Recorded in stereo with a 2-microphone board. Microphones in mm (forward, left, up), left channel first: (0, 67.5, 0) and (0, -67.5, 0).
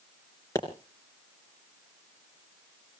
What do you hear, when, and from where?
0.6 s a pop: 25° left (ahead or behind), 3 m